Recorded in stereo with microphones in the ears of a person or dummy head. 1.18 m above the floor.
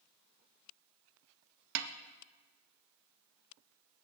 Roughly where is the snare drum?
Right.